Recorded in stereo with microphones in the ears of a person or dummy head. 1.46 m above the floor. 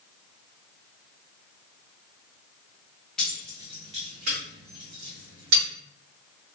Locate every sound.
3.2 s keys jangling: 5° left (ahead or behind), 0.7 m; by 5.6 s 75° right (ahead or behind), 1.6 m